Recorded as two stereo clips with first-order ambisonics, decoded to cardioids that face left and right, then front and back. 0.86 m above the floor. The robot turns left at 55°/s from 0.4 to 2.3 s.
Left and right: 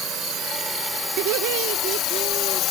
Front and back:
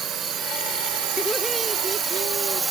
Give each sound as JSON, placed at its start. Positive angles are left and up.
{"t": 0.0, "sound": "a drone", "azimuth_deg": -140}
{"t": 1.2, "sound": "laughter", "azimuth_deg": -75}